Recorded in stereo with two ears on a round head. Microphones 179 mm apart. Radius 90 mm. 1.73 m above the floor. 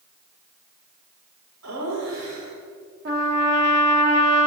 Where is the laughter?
85° right, 6.5 m.